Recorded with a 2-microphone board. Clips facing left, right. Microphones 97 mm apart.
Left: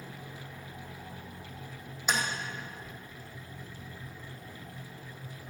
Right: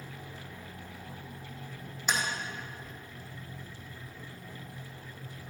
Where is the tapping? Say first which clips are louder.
Left 1 dB; 5° left (ahead or behind), 2.5 m.